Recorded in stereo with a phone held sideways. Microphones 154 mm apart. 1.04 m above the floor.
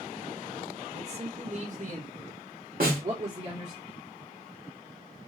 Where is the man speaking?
40° right (ahead or behind), 1.2 m; by 3.8 s 50° right (ahead or behind), 1.6 m.